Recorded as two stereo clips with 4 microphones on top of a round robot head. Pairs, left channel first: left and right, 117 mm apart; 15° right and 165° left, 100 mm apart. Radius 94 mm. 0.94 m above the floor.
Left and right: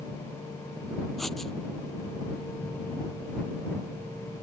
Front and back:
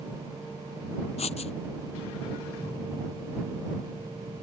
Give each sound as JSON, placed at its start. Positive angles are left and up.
{"t": 1.2, "sound": "writing", "azimuth_deg": 0}